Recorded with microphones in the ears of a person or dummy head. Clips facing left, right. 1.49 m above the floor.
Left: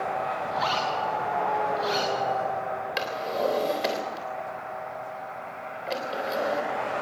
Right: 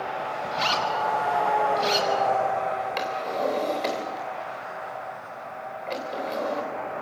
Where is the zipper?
40° right (ahead or behind), 6 m.